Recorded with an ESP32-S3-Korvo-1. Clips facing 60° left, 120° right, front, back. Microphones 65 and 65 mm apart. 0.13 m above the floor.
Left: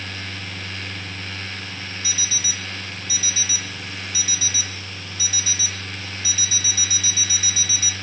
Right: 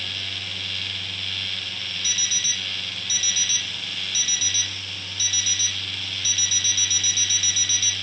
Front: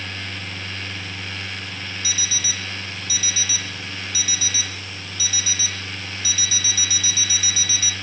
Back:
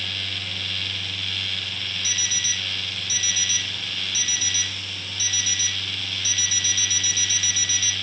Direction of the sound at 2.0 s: 130° left.